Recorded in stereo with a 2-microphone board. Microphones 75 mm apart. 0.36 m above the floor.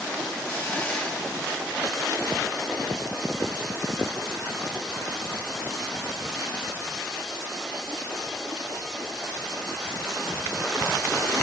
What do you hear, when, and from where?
0.5 s a hiss: 15° left (ahead or behind), 1.4 m